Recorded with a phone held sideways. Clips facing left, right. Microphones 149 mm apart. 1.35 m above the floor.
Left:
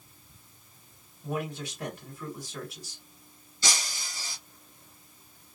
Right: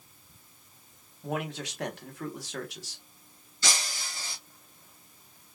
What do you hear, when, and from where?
1.2 s a man speaking: 80° right, 1.1 m
3.6 s breaking glass: 20° left (ahead or behind), 1.7 m